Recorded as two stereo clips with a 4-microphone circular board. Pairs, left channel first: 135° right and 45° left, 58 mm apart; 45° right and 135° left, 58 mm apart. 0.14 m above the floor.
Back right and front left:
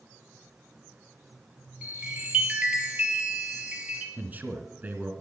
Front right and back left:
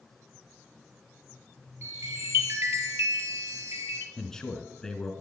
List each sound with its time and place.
1.8 s a chime: 115° left, 3 m
4.2 s a man speaking: 30° left, 1.9 m